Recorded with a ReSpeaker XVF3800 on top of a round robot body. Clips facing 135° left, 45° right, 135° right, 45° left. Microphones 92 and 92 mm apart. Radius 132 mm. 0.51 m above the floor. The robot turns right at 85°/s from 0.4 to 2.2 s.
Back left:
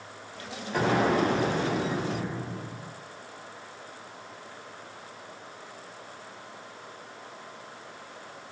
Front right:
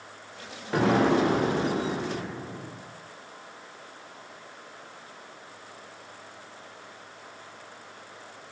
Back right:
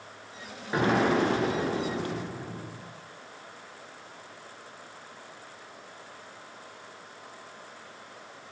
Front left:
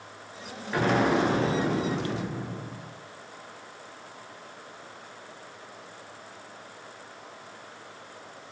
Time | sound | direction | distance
0.7 | an explosion | 65° right | 3.5 m